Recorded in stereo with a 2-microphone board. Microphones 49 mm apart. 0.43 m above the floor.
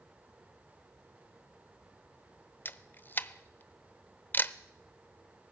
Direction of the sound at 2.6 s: 40° left (ahead or behind).